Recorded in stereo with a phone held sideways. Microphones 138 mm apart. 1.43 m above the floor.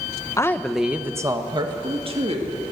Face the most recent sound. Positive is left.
turn(degrees=-50)  # may be behind; listen again after turning